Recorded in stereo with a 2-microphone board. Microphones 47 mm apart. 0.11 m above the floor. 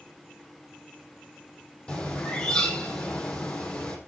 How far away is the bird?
About 4.5 m.